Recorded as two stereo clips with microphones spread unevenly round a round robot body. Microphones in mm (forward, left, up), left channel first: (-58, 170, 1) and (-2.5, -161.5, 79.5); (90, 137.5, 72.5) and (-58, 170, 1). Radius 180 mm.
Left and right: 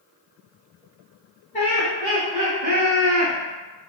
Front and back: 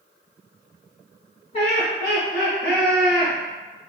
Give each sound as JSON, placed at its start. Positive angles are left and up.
{"t": 1.5, "sound": "laughter", "azimuth_deg": 60, "distance_m": 1.1}